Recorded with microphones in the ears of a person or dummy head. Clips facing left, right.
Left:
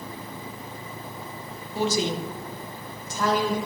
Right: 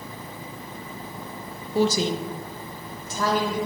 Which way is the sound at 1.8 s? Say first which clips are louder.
Right 3 dB; 35° right (ahead or behind).